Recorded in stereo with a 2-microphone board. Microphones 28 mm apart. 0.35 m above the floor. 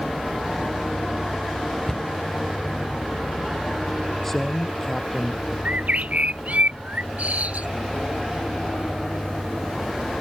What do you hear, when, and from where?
1.9 s a cupboard door: 20° left (ahead or behind)
4.2 s a man speaking: 10° left (ahead or behind)
5.7 s a bird: 70° right (ahead or behind)